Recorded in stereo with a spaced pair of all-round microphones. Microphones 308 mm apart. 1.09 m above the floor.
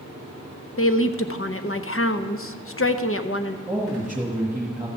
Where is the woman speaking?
45° left (ahead or behind), 0.7 m.